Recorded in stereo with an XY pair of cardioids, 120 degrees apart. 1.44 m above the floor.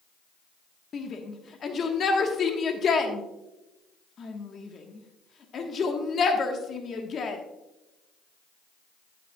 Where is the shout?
45° left, 1.3 m.